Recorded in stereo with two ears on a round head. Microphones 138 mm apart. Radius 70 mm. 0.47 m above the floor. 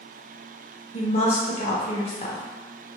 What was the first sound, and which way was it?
A woman speaking, 40° left (ahead or behind).